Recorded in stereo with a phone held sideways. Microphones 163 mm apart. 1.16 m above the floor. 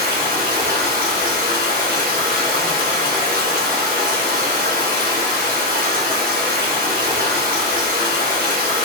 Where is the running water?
55° right (ahead or behind), 0.8 m.